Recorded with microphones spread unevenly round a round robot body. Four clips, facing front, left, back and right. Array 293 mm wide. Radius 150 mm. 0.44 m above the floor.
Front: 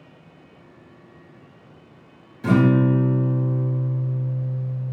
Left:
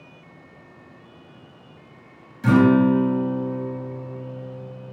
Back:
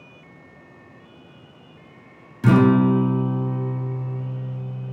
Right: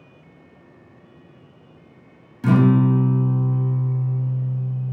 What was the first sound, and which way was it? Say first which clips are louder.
A guitar: left 2 dB, back 2 dB; 165° right.